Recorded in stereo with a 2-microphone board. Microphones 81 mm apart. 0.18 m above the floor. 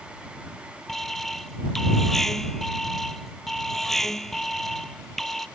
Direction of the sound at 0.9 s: 5° left (ahead or behind).